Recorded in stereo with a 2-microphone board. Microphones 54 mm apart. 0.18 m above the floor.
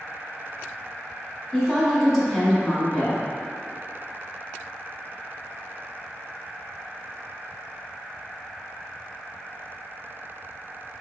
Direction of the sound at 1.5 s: 5° left (ahead or behind).